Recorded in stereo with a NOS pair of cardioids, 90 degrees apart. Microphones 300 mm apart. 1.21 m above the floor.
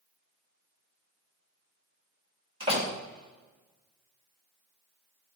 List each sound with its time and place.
2.6 s a door slam: 20° right, 3.5 m